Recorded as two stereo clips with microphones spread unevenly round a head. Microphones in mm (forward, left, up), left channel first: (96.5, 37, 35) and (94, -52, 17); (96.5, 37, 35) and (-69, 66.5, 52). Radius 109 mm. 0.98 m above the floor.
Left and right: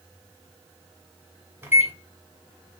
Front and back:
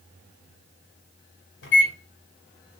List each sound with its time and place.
1.6 s a microwave: 25° right, 1.8 m